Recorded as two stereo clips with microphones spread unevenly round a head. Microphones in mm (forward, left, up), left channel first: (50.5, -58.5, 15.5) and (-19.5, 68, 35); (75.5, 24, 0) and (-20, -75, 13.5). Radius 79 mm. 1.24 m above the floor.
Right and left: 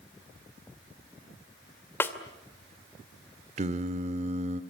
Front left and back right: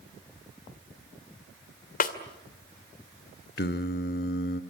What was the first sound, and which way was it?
A snare drum, 20° left.